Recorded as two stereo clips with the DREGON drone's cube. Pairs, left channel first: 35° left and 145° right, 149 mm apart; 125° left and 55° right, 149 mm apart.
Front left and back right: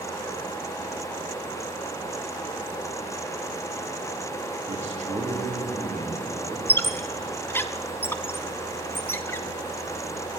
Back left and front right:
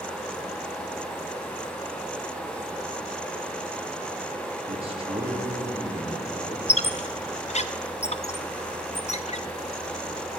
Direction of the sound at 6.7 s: 105° left.